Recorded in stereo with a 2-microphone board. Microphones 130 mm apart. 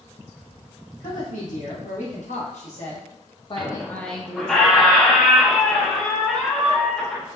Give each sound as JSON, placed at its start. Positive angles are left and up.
{"t": 1.0, "sound": "a woman speaking", "side_deg": 80, "distance_m": 1.6}
{"t": 3.6, "sound": "a squeak", "side_deg": 5, "distance_m": 0.6}